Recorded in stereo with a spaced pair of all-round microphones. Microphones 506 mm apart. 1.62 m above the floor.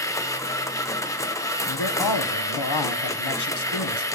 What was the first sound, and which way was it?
A machine running, 5° left (ahead or behind).